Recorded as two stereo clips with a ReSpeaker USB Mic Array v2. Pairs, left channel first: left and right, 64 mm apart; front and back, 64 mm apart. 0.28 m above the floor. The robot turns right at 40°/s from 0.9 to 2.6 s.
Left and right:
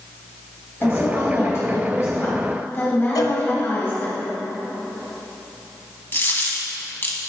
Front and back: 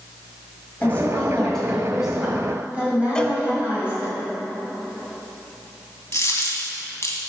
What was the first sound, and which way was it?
A woman speaking, 60° left.